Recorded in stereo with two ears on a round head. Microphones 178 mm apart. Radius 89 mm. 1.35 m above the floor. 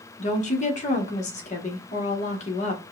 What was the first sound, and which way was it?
A woman speaking, 35° left (ahead or behind).